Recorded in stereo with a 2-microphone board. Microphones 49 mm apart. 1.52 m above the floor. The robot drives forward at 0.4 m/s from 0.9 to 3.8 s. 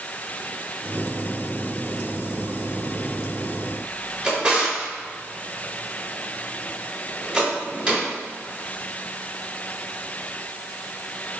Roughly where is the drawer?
Right.